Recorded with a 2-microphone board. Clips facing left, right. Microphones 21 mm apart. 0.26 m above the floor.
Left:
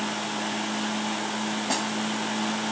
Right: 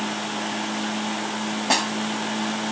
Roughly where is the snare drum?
Right.